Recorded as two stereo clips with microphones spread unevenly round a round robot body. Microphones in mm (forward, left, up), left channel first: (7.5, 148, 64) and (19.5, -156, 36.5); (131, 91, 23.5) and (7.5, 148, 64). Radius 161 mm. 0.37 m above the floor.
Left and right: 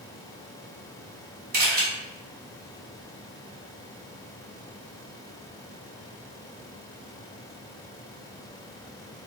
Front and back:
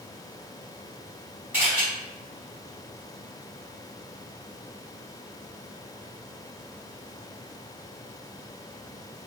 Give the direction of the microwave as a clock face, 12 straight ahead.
No microwave in this recording.